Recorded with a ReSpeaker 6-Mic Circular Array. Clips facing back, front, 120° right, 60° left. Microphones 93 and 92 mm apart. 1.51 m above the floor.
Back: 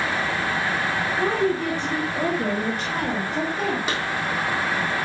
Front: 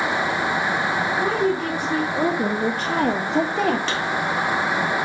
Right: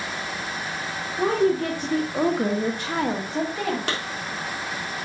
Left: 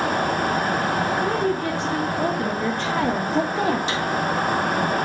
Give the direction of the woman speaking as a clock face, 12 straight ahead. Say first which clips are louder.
Back 1 dB, right 1 dB; 3 o'clock.